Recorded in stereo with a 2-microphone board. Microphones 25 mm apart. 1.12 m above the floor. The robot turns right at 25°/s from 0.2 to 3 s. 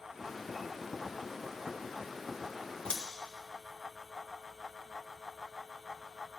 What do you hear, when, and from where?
2.9 s scissors: 50° left (ahead or behind), 1.7 m